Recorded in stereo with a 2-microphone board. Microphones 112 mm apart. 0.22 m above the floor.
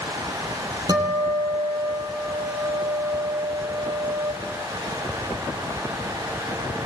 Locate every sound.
0.9 s a guitar: 35° right (ahead or behind), 7 m